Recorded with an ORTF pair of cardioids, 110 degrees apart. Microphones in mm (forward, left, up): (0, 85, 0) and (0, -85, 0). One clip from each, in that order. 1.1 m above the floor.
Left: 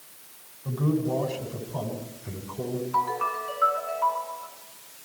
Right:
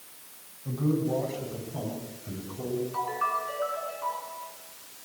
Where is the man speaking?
45° left, 8 m; by 2.8 s 50° left, 9.5 m.